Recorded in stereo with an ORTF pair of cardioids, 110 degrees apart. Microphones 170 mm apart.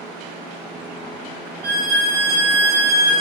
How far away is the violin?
About 0.9 m.